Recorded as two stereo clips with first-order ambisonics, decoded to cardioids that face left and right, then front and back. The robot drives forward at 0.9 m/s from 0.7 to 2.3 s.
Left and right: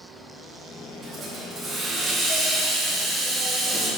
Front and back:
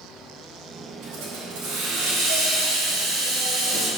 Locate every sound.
1.0 s a hiss: 160° right, 3 m; by 3.9 s 165° right, 4 m